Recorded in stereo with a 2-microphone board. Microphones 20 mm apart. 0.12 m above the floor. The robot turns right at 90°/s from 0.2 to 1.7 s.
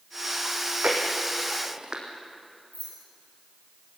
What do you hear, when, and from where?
0.5 s chewing: 35° right (ahead or behind), 4 m
2.7 s keys jangling: 75° left (ahead or behind), 9 m